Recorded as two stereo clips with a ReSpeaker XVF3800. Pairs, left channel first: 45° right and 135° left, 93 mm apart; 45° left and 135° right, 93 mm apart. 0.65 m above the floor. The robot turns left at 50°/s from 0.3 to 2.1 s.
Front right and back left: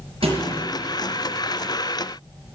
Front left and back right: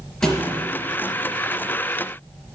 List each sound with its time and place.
0.2 s a thud: 130° left, 4 m; by 0.6 s 120° left, 4 m